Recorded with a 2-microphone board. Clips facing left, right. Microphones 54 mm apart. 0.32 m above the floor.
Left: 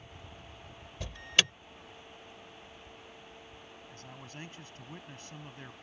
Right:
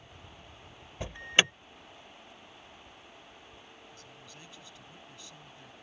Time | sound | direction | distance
1.0 | an alarm | 25° right (ahead or behind) | ?
3.9 | a man speaking | 45° left (ahead or behind) | ?